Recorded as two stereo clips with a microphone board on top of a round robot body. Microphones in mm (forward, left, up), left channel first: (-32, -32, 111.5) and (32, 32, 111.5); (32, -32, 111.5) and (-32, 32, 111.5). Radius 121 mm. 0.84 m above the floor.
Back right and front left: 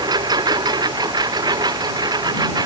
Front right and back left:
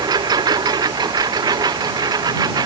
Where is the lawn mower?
90° left.